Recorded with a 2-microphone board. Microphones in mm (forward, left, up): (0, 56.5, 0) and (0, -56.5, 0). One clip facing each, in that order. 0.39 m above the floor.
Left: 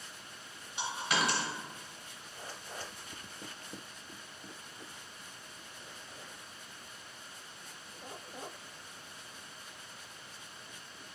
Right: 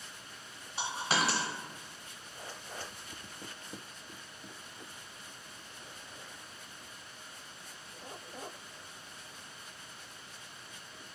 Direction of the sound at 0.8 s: 30° right (ahead or behind).